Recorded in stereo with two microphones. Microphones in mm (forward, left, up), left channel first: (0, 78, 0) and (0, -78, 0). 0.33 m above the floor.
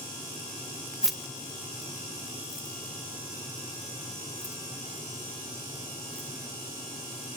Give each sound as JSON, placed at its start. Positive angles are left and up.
{"t": 1.0, "sound": "keys jangling", "side_deg": -5, "distance_m": 0.6}